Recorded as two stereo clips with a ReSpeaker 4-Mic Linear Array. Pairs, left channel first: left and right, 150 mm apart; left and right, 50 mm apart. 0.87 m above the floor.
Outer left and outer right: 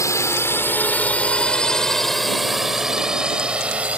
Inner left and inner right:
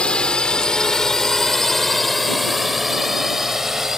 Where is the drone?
20° left (ahead or behind); by 4.0 s 10° right (ahead or behind).